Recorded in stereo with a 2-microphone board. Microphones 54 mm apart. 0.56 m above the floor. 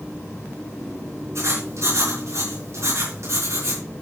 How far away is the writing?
About 4.5 m.